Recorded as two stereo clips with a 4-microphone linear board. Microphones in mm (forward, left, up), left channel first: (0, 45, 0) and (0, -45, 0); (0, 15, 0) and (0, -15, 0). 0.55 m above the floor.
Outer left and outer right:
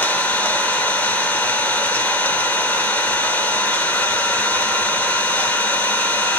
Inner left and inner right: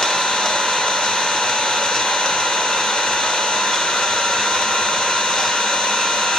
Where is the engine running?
20° left (ahead or behind), 1.2 m.